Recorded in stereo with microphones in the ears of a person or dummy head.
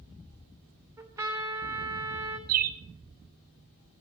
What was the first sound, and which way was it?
A trumpet, 10° right (ahead or behind).